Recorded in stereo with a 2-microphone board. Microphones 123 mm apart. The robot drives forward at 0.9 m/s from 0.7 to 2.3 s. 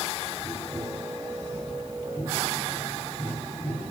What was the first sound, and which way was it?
Tapping, 25° left (ahead or behind).